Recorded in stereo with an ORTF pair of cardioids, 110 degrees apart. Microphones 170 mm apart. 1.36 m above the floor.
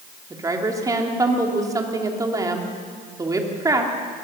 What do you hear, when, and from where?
0.3 s a woman speaking: 20° right, 3 m